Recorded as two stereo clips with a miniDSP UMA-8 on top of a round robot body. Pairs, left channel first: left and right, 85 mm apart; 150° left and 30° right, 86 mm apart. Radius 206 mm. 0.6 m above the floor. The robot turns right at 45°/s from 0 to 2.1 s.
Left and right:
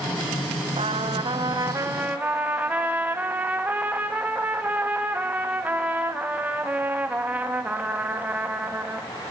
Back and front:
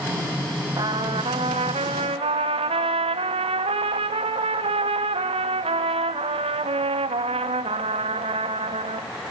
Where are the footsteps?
I don't hear footsteps.